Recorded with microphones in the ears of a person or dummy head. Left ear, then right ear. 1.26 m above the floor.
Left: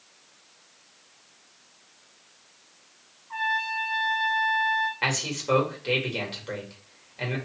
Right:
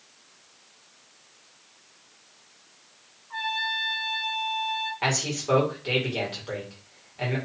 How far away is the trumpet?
About 0.8 m.